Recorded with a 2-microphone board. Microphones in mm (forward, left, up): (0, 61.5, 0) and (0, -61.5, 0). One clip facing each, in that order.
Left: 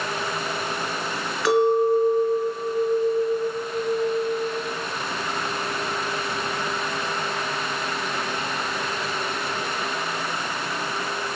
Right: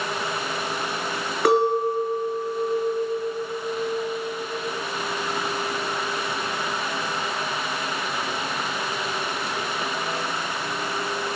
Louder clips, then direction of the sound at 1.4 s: Left 1 dB; 55° right (ahead or behind).